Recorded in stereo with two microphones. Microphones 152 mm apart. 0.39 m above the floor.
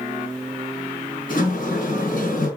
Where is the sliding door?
65° left (ahead or behind), 4 m.